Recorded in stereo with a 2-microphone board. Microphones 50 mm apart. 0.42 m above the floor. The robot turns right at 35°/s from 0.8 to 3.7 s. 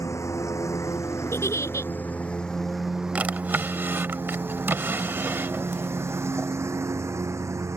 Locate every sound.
0.0 s a lawn mower: 85° left; by 7.8 s 75° right (ahead or behind)
1.3 s a giggle: 65° left (ahead or behind); by 1.9 s 85° left
3.1 s a drawer: 30° right (ahead or behind); by 6.5 s 50° right (ahead or behind)